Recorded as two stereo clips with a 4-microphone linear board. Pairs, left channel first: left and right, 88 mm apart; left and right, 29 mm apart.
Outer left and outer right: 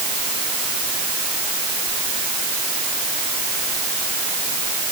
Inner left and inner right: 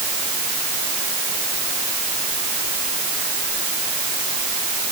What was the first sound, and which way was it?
Only background noise.